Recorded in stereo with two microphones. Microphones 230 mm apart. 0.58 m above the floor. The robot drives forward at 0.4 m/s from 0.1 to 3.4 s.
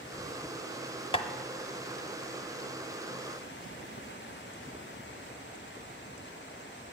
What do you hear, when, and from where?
1.1 s tapping: 25° left (ahead or behind), 0.6 m; by 1.3 s 20° left (ahead or behind), 0.6 m